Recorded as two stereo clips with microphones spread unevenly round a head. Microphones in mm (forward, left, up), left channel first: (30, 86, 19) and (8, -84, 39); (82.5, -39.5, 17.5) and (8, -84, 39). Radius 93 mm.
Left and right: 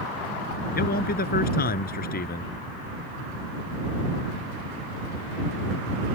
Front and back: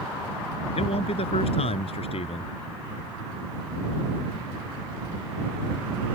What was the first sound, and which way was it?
A man speaking, 45° left.